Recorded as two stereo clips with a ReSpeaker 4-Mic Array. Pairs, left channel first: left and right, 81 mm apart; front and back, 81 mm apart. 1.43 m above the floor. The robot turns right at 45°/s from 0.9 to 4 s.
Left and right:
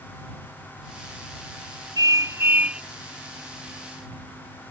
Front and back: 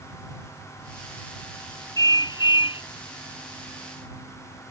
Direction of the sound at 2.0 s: 50° right.